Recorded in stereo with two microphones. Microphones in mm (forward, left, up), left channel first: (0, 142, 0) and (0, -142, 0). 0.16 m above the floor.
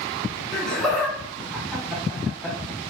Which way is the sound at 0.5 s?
Centre (ahead or behind).